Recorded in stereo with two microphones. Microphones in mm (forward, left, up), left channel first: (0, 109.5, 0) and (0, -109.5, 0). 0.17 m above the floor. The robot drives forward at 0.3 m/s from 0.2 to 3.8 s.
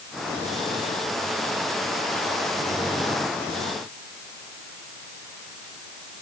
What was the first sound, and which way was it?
Only background noise.